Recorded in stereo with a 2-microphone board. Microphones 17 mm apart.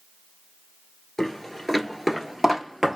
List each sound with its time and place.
1.2 s footsteps: 20° left (ahead or behind), 1.3 m; by 3.0 s 20° right (ahead or behind), 1.6 m